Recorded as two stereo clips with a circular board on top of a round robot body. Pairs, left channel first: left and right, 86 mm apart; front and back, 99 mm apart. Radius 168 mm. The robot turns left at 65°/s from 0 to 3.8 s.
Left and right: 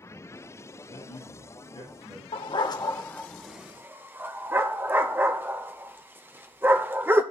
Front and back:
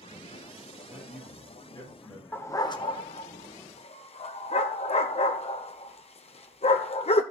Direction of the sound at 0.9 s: 110° left.